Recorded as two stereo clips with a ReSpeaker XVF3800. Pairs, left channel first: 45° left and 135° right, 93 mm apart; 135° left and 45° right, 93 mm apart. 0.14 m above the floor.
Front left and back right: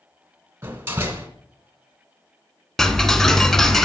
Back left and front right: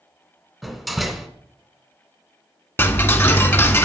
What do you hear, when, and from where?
0.6 s a door slam: 135° right, 0.9 m
2.8 s ticking: 120° left, 0.6 m